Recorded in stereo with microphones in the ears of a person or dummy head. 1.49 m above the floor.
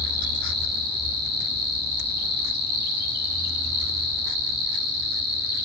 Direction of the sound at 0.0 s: 50° right (ahead or behind).